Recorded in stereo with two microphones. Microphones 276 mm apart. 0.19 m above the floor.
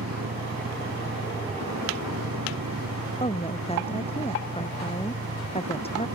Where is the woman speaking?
20° left (ahead or behind).